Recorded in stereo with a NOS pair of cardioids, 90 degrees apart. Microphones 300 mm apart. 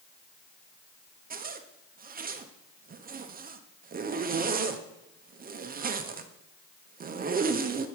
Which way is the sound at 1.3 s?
30° right.